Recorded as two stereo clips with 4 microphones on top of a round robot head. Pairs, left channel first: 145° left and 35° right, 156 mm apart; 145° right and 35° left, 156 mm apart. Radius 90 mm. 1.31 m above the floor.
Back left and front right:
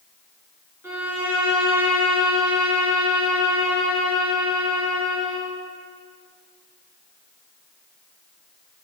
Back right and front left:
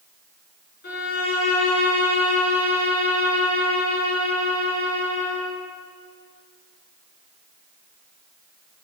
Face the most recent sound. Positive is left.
turn(degrees=-115)